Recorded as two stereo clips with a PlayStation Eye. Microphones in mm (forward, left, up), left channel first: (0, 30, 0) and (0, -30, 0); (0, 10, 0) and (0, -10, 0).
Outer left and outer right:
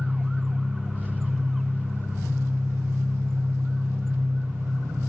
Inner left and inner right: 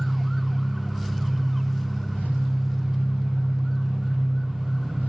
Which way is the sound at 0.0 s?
65° right (ahead or behind).